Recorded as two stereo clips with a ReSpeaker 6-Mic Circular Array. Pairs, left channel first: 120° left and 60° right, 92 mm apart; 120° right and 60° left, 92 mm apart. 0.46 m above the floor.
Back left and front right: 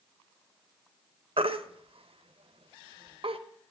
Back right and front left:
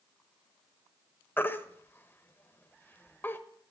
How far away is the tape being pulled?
I don't hear tape being pulled.